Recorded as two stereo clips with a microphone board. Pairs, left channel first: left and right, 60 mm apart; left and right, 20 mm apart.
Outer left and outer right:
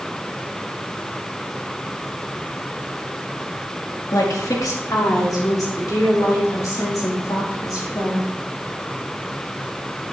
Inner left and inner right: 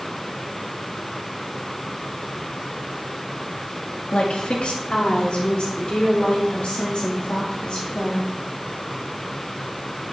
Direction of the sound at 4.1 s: 75° left (ahead or behind).